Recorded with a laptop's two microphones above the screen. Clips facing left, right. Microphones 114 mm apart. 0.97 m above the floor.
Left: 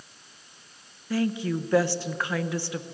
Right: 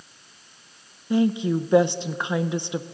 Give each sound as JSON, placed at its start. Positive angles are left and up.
{"t": 1.1, "sound": "a woman speaking", "side_deg": -20, "distance_m": 0.7}